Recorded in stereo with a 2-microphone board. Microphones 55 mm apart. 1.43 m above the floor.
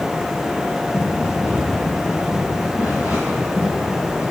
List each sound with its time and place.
0.9 s running footsteps: 30° right (ahead or behind), 5.5 m